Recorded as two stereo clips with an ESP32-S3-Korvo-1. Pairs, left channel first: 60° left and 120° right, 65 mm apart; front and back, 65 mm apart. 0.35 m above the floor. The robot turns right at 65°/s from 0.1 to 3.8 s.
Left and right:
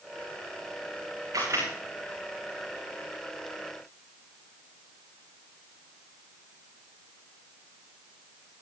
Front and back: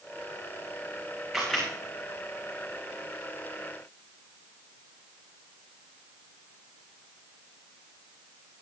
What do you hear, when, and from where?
1.3 s a camera shutter: 90° right, 7.5 m; by 1.7 s 70° right, 7.5 m